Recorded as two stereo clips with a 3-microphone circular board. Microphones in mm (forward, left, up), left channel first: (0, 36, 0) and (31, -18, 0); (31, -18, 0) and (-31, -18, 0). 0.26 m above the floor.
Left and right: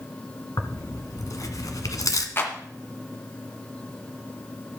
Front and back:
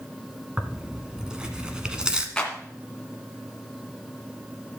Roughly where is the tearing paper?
Left.